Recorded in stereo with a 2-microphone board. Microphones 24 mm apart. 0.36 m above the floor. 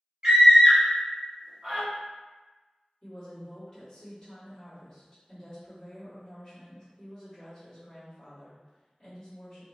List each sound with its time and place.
0.2 s a scream: 35° right (ahead or behind), 1.2 m
3.0 s a woman speaking: 20° left (ahead or behind), 1.5 m